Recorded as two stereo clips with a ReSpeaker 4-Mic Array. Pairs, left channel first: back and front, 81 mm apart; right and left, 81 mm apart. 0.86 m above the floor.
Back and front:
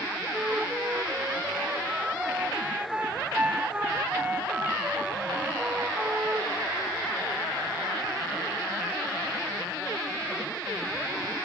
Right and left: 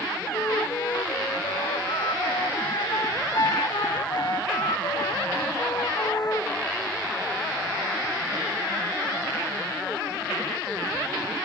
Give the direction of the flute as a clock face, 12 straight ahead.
2 o'clock.